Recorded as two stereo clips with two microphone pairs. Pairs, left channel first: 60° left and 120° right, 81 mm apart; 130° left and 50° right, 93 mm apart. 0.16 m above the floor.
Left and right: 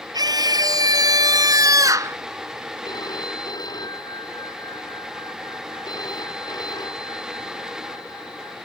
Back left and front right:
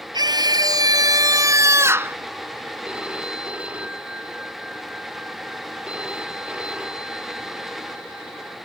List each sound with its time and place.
0.1 s a scream: 90° right; by 2.2 s 105° right
2.9 s a phone ringing: 25° left